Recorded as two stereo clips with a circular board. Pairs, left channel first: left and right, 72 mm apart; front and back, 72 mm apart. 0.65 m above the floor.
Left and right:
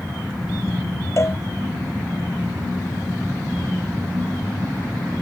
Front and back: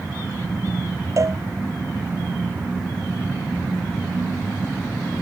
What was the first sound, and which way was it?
A cowbell, 140° left.